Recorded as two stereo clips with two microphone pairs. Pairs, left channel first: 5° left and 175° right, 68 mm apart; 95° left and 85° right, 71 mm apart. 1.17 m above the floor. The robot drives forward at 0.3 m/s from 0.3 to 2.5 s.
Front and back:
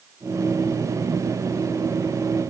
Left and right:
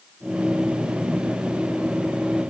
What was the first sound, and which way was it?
Only background noise.